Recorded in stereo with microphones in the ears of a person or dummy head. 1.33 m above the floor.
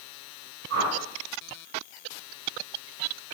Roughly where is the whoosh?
Right.